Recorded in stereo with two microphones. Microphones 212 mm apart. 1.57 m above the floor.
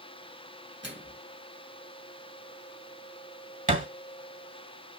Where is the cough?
I don't hear a cough.